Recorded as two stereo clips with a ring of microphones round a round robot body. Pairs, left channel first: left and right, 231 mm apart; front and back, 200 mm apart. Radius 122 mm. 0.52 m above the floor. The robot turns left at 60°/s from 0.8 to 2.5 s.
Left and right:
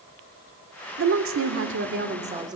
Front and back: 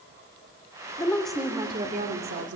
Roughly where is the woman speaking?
Right.